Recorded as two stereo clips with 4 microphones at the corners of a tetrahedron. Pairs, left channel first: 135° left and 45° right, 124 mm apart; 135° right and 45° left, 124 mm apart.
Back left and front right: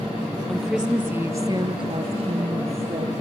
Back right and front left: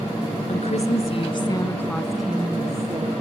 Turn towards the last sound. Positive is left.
turn(degrees=-15)